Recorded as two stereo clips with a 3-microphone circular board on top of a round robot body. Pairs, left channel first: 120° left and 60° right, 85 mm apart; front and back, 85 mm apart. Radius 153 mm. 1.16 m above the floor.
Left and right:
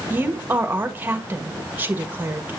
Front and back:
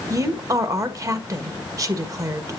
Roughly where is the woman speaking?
Behind right.